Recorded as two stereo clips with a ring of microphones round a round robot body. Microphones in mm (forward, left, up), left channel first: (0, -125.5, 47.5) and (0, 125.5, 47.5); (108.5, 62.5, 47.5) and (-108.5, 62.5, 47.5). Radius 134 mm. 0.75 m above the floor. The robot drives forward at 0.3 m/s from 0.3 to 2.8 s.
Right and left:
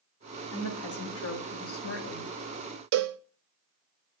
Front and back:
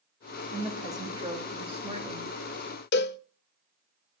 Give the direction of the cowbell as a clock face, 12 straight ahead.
11 o'clock.